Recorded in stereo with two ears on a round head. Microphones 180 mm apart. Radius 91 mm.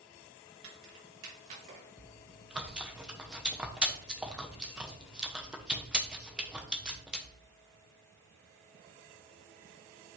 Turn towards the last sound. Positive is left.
turn(degrees=-5)  # may be behind; listen again after turning